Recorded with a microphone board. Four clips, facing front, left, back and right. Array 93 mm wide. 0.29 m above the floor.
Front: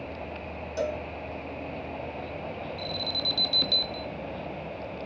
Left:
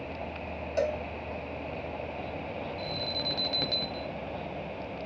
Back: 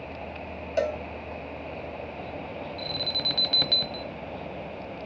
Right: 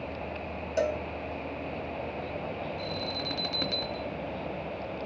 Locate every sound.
0.8 s a cowbell: 175° right, 1.5 m
2.8 s an alarm: 165° right, 1.2 m